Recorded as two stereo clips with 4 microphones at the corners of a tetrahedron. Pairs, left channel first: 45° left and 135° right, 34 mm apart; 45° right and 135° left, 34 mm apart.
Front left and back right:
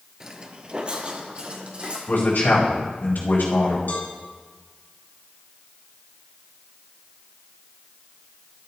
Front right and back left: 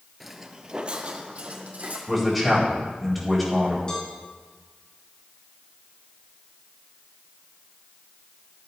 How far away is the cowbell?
About 3 m.